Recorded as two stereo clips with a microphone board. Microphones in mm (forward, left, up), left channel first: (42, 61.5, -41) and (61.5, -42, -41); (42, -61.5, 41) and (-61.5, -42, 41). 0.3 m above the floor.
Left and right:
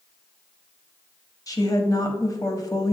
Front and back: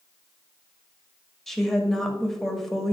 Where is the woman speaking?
75° left, 1.1 m.